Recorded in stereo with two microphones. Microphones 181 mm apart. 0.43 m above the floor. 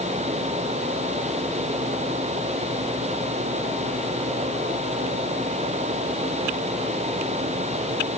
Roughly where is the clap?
I don't hear a clap.